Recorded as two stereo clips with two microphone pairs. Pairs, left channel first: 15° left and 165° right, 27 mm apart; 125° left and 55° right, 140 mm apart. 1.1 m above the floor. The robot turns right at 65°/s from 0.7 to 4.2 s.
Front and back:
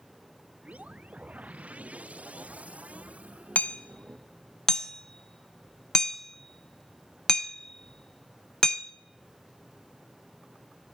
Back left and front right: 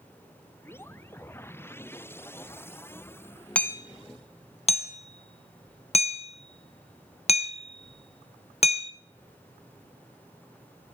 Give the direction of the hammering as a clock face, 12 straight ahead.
11 o'clock.